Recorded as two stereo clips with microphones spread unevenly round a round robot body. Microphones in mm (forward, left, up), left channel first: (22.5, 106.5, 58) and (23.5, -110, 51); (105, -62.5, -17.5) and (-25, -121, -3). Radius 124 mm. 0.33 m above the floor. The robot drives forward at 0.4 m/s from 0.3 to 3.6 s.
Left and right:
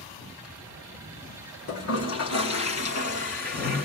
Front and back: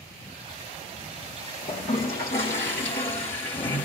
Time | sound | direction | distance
1.7 | a toilet flushing | 75° left | 4.5 m